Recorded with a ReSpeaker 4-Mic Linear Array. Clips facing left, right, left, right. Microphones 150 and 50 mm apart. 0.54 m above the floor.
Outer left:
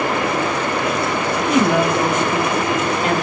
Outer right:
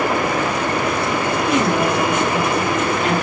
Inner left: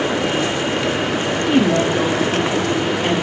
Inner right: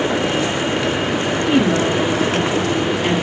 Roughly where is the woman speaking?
Left.